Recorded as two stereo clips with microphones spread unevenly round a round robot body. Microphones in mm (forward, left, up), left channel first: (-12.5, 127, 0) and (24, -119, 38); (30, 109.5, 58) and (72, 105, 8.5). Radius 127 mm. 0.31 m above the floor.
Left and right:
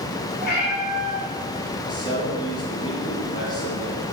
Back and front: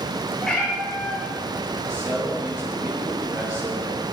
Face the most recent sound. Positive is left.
turn(degrees=25)